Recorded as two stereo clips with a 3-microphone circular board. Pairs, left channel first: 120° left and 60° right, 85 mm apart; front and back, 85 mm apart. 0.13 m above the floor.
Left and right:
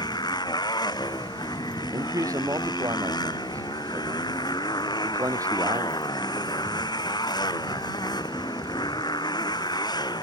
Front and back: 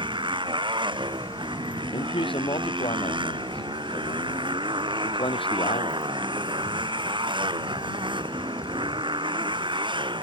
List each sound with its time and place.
0.0 s a motorcycle: 155° left
1.9 s a man speaking: 10° right